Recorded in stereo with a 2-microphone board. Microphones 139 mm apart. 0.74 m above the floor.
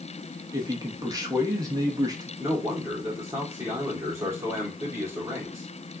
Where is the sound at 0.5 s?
25° right (ahead or behind), 1.0 m.